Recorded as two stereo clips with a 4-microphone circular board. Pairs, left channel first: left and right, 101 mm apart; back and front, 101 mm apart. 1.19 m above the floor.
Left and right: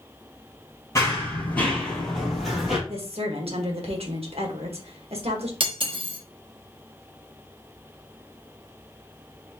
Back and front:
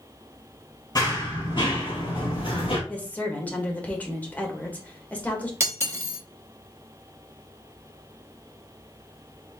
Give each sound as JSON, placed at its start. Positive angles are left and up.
{"t": 0.9, "sound": "running footsteps", "azimuth_deg": 145, "distance_m": 1.9}
{"t": 2.9, "sound": "a woman speaking", "azimuth_deg": -105, "distance_m": 1.2}
{"t": 5.6, "sound": "cutlery clinking", "azimuth_deg": -60, "distance_m": 1.2}